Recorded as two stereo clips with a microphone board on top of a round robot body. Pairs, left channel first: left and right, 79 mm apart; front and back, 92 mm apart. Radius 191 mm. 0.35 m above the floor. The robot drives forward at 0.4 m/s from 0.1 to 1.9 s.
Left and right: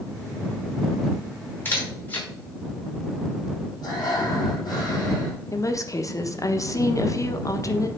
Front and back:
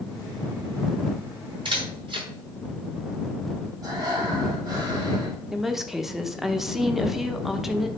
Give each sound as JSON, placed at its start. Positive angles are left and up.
{"t": 1.6, "sound": "a camera shutter", "azimuth_deg": 150, "distance_m": 5.5}
{"t": 3.8, "sound": "breathing", "azimuth_deg": 130, "distance_m": 5.0}
{"t": 5.5, "sound": "a woman speaking", "azimuth_deg": 95, "distance_m": 1.4}